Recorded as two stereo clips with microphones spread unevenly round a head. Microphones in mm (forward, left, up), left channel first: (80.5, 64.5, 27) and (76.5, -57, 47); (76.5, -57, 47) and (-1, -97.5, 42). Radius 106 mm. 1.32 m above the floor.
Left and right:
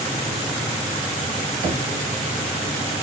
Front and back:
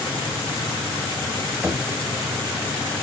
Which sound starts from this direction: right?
Knocking, at 1.6 s.